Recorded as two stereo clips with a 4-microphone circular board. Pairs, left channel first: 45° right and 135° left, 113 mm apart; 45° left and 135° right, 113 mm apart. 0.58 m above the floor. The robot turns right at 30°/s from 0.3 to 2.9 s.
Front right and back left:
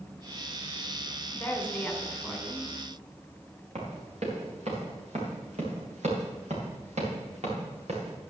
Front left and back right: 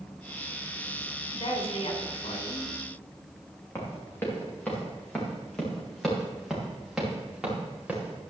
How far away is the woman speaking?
About 2.5 m.